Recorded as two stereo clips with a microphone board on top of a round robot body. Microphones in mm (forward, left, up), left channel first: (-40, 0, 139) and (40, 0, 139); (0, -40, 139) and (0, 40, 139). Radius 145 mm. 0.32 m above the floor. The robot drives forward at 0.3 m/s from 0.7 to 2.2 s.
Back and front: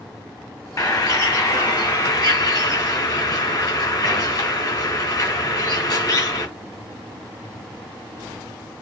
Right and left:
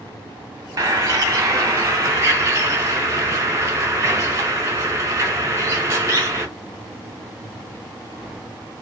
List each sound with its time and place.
0.8 s a bird: 140° left, 2 m; by 6.5 s 145° left, 2.5 m